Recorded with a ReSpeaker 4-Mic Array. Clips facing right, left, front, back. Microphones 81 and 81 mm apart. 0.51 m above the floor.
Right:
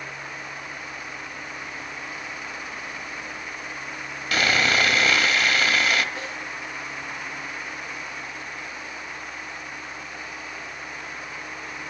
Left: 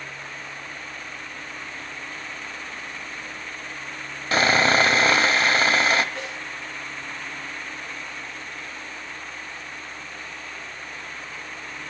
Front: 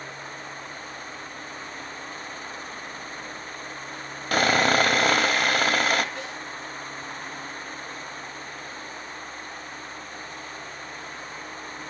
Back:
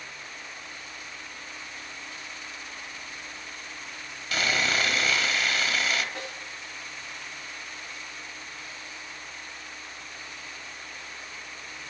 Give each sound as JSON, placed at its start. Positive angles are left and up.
{"t": 4.3, "sound": "sawing", "azimuth_deg": 35, "distance_m": 0.5}
{"t": 6.2, "sound": "a snare drum", "azimuth_deg": -165, "distance_m": 4.5}